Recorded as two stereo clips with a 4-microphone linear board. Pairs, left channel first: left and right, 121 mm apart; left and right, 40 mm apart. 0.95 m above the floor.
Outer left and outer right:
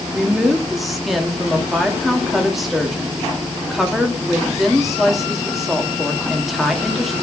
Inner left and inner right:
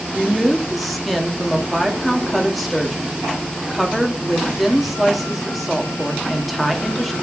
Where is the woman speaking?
Centre (ahead or behind), 1.7 m.